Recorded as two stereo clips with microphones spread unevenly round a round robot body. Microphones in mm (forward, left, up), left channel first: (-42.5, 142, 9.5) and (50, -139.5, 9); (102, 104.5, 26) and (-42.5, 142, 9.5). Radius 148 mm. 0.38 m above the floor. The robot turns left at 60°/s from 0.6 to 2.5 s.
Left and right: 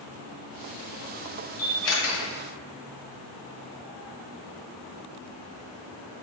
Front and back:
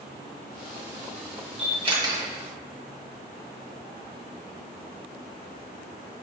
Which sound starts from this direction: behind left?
A camera shutter, at 1.6 s.